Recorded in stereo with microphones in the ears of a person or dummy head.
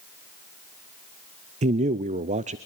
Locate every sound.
1.6 s a man speaking: 35° right (ahead or behind), 0.5 m